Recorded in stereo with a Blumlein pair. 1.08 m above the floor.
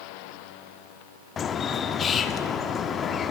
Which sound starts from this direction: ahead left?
A bird, at 1.4 s.